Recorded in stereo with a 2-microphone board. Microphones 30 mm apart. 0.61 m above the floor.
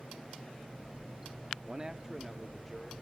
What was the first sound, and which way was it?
A man speaking, 30° right (ahead or behind).